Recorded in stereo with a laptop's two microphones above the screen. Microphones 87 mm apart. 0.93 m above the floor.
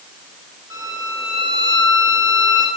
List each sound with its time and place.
0.7 s a violin: 45° right (ahead or behind), 10 m